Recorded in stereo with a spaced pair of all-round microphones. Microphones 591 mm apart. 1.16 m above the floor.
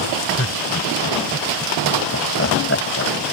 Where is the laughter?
25° left (ahead or behind); by 3.1 s 20° left (ahead or behind).